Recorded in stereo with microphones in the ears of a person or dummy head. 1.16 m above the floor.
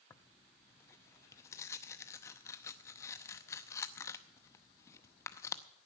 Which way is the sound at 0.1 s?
20° left (ahead or behind).